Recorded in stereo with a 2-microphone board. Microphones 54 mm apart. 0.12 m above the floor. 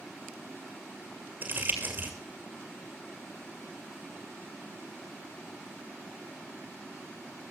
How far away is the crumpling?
About 2.5 m.